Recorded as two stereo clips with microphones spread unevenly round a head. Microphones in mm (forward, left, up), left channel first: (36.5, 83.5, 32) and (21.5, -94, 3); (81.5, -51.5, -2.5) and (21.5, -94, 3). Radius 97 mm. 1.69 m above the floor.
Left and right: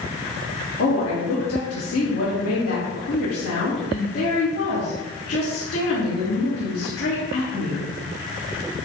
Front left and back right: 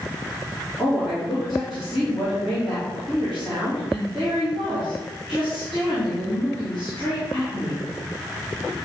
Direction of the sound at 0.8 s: 125° left.